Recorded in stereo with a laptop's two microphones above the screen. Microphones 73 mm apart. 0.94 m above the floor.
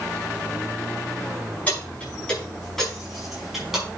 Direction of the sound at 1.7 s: 20° left (ahead or behind).